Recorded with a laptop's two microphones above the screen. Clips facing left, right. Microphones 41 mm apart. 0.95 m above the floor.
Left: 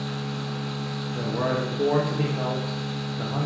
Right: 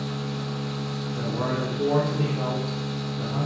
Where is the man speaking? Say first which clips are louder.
Left 2 dB; 40° left (ahead or behind), 0.7 m.